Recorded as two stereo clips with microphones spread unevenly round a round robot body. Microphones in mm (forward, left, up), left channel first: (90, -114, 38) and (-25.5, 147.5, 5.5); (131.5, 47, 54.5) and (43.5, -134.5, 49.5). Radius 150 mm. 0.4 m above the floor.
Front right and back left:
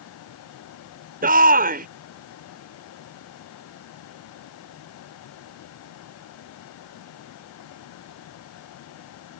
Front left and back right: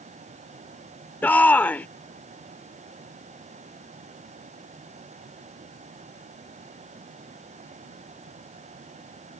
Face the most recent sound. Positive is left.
turn(degrees=145)